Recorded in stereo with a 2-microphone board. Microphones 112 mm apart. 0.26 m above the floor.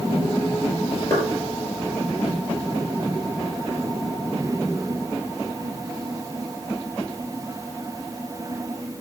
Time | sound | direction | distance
1.1 | knocking | 25° left (ahead or behind) | 5.5 m